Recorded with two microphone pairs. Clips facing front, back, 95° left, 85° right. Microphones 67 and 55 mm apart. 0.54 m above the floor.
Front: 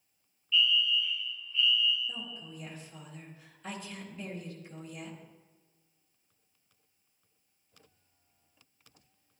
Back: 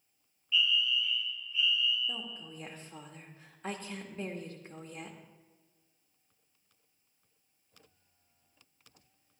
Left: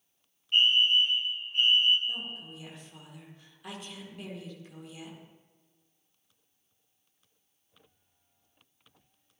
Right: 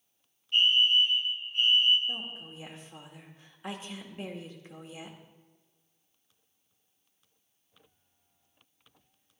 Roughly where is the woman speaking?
Behind right.